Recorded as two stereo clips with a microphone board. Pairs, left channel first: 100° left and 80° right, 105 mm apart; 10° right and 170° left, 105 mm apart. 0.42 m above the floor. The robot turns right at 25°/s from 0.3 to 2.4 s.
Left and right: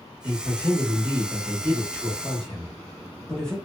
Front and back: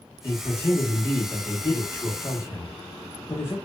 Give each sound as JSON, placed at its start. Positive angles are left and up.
{"t": 0.2, "sound": "a man speaking", "azimuth_deg": -25, "distance_m": 0.8}